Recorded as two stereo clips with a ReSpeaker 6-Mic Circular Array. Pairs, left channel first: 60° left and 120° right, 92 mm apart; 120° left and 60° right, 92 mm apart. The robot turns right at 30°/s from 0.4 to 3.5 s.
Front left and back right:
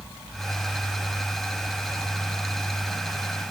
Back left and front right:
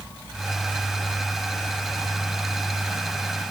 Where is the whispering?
No whispering in this recording.